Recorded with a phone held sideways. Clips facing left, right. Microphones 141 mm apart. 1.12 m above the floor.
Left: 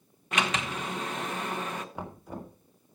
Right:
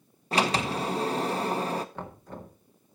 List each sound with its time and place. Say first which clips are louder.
0.3 s a sliding door: right 4 dB; 35° right (ahead or behind), 0.9 m
1.9 s knocking: left 1 dB; 10° left (ahead or behind), 1.7 m